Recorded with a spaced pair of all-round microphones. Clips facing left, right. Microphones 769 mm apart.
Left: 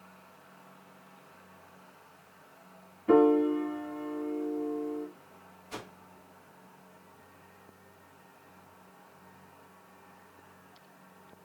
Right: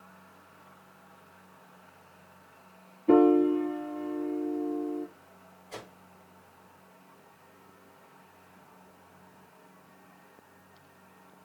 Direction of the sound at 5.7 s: 45° left (ahead or behind).